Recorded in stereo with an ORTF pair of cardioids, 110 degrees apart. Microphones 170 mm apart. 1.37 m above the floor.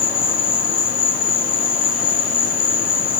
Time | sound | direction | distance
0.0 | an insect | 70° left | 3 m